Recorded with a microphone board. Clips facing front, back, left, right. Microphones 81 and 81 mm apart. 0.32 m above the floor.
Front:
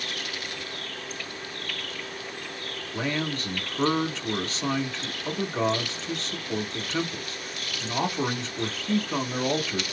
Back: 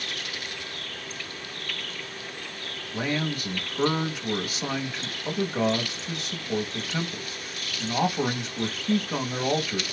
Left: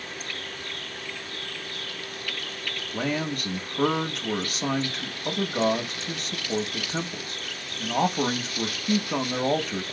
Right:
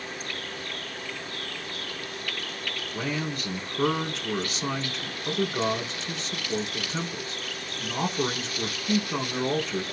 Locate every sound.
2.9 s a man speaking: 105° left, 1.3 m